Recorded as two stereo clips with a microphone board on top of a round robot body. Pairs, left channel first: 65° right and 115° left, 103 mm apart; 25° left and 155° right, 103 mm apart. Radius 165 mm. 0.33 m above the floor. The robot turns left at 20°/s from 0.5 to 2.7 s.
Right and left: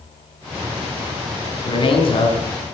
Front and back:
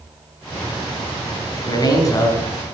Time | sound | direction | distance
1.6 | a man speaking | 25° right | 4 m